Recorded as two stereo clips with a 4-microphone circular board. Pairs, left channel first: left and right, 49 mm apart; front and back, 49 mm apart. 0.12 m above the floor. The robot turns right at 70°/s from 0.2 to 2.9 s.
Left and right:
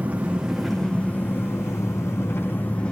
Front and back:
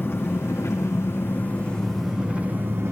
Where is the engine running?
35° right, 3 m; by 2.9 s 155° left, 3 m.